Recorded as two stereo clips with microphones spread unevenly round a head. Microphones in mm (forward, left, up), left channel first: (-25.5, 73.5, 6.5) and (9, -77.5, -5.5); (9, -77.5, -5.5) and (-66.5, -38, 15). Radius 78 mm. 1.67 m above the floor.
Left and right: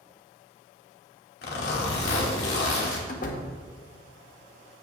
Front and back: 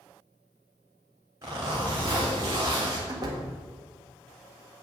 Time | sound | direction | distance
1.4 | a zipper | 90° left | 3 m
3.1 | a door slam | 125° left | 1.5 m